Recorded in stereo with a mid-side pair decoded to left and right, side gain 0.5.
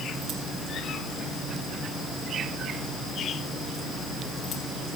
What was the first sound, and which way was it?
Only background noise.